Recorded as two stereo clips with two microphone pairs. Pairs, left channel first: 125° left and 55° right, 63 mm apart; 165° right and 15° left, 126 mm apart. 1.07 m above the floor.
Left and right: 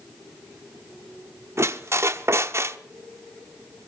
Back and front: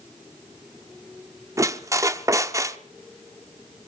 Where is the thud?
I don't hear a thud.